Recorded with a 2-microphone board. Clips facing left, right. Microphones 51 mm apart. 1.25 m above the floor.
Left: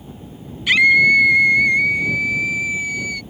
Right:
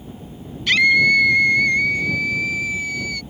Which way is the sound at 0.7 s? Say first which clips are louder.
Left 2 dB; 15° left (ahead or behind).